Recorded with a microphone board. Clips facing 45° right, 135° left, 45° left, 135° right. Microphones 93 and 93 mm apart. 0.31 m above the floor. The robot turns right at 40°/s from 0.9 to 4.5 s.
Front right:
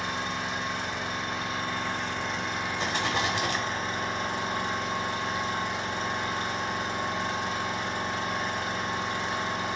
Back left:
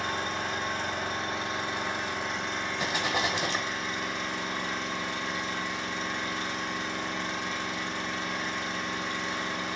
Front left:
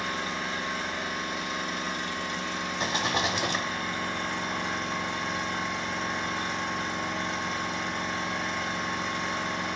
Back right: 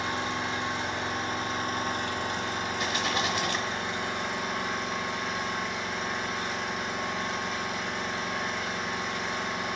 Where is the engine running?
165° left, 1.2 m; by 9.8 s 50° right, 1.2 m.